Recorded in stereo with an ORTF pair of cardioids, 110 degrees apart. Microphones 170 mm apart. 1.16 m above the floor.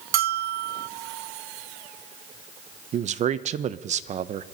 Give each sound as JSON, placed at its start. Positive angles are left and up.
{"t": 0.1, "sound": "a bell", "azimuth_deg": -65, "distance_m": 0.5}
{"t": 2.9, "sound": "a man speaking", "azimuth_deg": -45, "distance_m": 0.8}